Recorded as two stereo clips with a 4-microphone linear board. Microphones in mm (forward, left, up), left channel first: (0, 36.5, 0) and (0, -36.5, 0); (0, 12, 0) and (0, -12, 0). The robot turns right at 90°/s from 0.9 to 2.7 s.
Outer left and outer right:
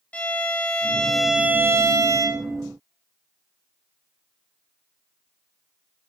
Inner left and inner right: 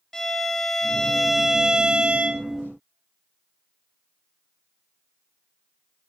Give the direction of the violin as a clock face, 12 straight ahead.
7 o'clock.